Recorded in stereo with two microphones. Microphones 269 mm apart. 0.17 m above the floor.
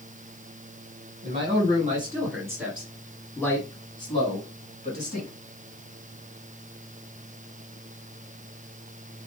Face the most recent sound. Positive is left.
turn(degrees=35)  # may be behind; listen again after turning